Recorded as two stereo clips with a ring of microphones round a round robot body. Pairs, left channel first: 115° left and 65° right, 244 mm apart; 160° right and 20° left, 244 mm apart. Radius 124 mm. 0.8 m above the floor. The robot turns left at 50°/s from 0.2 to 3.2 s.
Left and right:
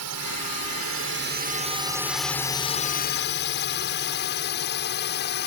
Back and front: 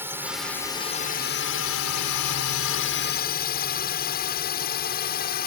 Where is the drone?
60° right; by 5.5 s 155° left.